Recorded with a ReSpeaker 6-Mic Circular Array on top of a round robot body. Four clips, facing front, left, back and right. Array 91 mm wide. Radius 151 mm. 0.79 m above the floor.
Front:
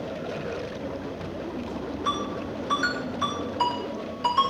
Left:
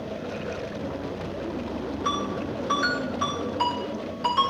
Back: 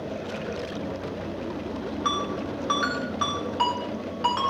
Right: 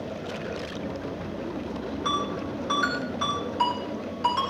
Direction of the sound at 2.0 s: 175° right.